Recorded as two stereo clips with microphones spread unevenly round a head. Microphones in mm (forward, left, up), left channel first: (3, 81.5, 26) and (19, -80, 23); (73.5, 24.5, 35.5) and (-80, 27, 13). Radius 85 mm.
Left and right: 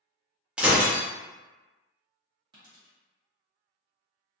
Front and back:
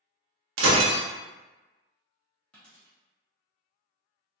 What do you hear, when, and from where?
0.6 s breaking glass: 170° right, 0.6 m
2.5 s a dropped coin: 55° right, 0.6 m